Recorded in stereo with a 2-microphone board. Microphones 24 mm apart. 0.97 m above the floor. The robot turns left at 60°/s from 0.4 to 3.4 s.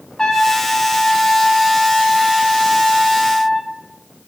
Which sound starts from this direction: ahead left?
A trumpet, at 0.2 s.